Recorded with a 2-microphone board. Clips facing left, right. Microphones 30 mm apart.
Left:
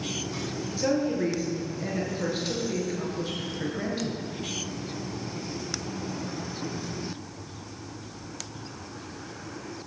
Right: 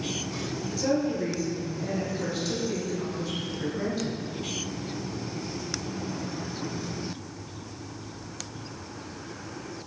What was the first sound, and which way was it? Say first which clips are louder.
A woman speaking: left 1 dB; 25° left (ahead or behind).